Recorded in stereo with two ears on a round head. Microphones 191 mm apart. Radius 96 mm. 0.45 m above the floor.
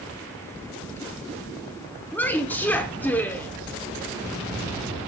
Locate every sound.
2.1 s a woman speaking: 10° left (ahead or behind), 1.0 m